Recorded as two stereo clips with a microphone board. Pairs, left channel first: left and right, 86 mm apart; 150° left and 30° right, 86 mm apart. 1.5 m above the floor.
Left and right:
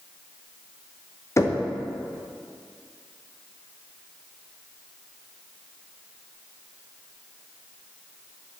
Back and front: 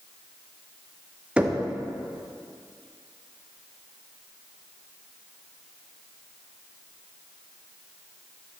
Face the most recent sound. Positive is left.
turn(degrees=45)